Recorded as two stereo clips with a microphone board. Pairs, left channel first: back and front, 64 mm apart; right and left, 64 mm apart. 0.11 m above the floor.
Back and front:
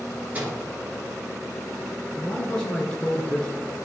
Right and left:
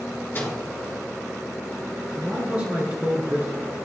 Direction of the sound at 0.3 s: 55° right.